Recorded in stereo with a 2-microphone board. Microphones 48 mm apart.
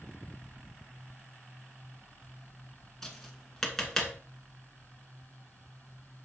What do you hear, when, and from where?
3.0 s tapping: 10° left (ahead or behind), 1.7 m